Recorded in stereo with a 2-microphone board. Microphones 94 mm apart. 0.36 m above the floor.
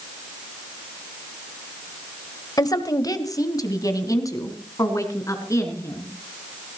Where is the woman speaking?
40° left (ahead or behind), 1.3 m; by 6.1 s 30° left (ahead or behind), 4.5 m.